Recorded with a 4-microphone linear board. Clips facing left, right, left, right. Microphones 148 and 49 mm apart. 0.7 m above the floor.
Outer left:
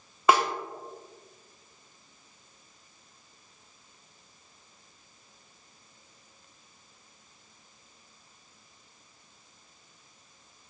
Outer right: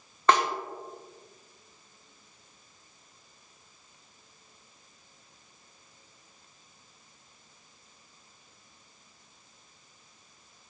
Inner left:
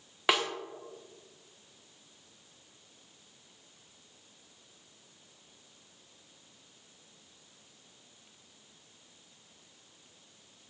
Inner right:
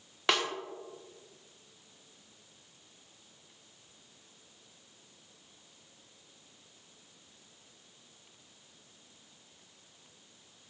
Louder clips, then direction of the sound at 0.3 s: Outer left 1 dB, inner left 1 dB; 10° left (ahead or behind).